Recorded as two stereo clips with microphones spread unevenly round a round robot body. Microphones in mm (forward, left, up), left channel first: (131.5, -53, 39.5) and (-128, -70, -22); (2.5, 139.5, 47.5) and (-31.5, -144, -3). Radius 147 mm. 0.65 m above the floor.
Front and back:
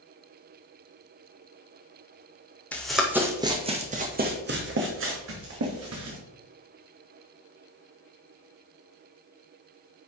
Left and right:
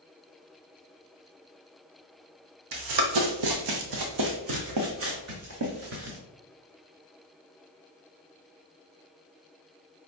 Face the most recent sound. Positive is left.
turn(degrees=-145)